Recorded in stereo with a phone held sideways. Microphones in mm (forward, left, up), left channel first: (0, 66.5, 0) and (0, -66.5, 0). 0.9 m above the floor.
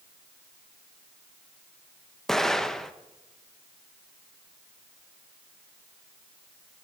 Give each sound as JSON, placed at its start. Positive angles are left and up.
{"t": 2.3, "sound": "an explosion", "side_deg": 5, "distance_m": 0.7}